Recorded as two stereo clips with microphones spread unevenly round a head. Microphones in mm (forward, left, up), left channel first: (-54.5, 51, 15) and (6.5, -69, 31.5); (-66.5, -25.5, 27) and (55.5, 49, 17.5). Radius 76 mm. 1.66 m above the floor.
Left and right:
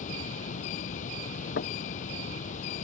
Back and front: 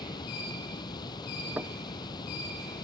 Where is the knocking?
110° left.